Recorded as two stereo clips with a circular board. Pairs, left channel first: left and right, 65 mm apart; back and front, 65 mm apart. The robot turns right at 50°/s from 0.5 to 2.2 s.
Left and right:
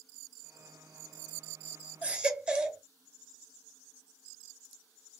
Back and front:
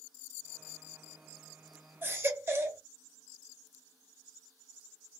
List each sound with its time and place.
2.0 s a baby crying: 35° right, 1.2 m; by 2.8 s 25° right, 1.2 m